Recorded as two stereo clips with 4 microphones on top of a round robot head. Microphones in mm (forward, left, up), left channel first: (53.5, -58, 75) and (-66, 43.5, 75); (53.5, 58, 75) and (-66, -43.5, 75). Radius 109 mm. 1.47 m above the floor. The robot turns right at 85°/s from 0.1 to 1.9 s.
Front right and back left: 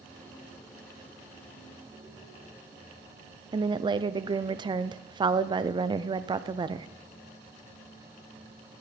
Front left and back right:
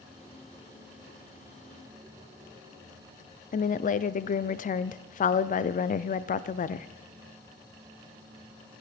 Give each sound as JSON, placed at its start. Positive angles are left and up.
{"t": 3.5, "sound": "a woman speaking", "azimuth_deg": 80, "distance_m": 0.5}